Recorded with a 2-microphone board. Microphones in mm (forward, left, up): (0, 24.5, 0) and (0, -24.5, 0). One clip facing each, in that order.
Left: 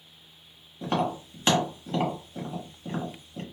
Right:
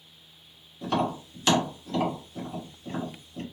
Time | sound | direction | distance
0.8 | tapping | 30° left (ahead or behind) | 1.2 m